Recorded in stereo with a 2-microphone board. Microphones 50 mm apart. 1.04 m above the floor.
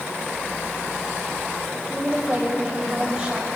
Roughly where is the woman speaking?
Right.